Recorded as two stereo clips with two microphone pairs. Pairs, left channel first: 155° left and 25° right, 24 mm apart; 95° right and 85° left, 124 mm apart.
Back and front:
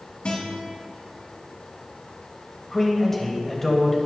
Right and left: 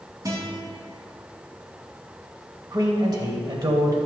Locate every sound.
0.2 s a guitar: 140° left, 2 m
2.7 s a man speaking: 95° left, 1.2 m